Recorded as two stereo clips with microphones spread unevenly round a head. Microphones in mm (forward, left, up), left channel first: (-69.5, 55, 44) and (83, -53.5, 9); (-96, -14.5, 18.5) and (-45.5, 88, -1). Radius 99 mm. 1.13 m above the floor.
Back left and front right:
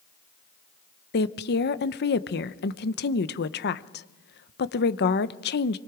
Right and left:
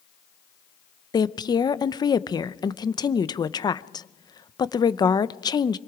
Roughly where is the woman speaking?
Behind.